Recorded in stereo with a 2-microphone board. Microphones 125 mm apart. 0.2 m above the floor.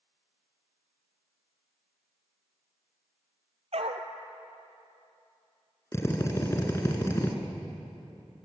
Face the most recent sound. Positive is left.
turn(degrees=25)  # may be behind; listen again after turning